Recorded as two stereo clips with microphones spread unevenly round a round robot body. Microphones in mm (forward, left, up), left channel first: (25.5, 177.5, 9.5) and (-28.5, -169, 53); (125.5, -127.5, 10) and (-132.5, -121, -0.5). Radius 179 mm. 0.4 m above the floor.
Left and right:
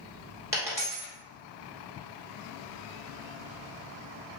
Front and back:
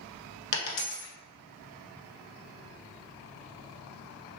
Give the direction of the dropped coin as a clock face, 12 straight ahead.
1 o'clock.